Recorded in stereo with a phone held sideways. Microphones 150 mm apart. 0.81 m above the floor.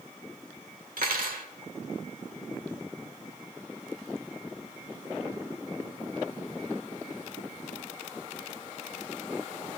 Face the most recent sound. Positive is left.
turn(degrees=-90)